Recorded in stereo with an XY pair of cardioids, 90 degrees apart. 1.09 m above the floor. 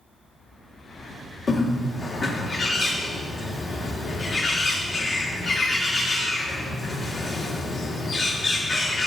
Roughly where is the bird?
Ahead left.